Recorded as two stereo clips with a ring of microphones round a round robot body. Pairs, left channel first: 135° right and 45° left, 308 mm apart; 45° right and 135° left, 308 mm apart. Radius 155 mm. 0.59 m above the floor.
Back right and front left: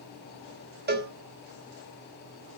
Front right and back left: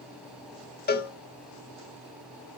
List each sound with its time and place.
0.9 s a cowbell: straight ahead, 1.4 m